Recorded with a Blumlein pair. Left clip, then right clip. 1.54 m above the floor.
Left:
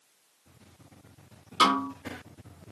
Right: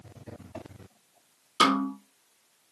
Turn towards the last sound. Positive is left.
turn(degrees=-15)